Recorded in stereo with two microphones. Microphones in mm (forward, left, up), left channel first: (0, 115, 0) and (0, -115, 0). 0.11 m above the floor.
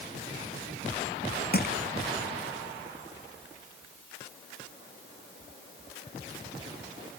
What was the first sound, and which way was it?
Crushing, 45° left (ahead or behind).